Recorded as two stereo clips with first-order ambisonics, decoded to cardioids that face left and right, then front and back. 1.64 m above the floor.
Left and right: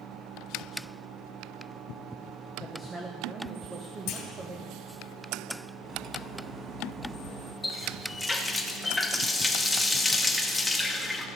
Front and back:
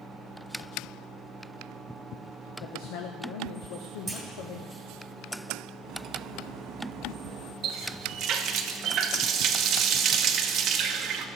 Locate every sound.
2.6 s a woman speaking: 15° right, 1.1 m
4.1 s a clunk: 100° left, 2.0 m
5.8 s cutlery clinking: 150° right, 1.2 m
7.6 s a running tap: 165° left, 0.9 m